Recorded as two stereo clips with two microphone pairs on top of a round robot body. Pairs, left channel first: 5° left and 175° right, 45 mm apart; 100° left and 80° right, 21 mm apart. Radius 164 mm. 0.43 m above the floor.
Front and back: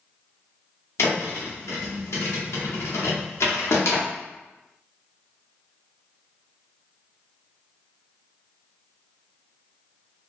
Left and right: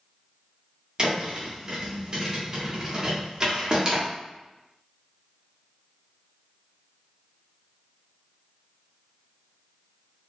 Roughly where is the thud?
Ahead.